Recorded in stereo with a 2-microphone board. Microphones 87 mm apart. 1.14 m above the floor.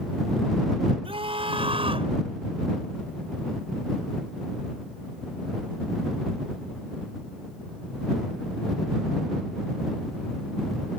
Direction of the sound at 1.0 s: 85° right.